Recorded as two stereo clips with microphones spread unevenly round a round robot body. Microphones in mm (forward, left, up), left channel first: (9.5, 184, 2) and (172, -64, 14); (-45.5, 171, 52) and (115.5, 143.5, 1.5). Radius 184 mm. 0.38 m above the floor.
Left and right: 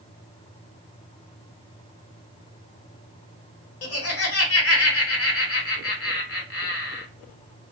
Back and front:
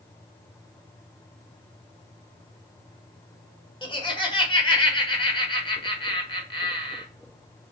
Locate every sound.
3.8 s laughter: 100° left, 1.4 m